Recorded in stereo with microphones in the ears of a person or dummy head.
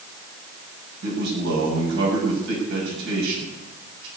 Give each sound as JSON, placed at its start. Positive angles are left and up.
{"t": 1.0, "sound": "a man speaking", "side_deg": -70, "distance_m": 7.5}